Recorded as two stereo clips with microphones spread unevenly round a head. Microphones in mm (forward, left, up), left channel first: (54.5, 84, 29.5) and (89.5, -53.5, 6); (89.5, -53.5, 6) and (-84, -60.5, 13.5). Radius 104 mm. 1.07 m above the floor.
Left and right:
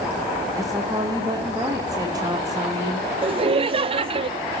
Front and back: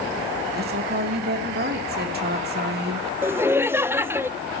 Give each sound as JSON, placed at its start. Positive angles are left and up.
{"t": 0.5, "sound": "a woman speaking", "azimuth_deg": -150, "distance_m": 2.0}
{"t": 3.2, "sound": "laughter", "azimuth_deg": -100, "distance_m": 0.7}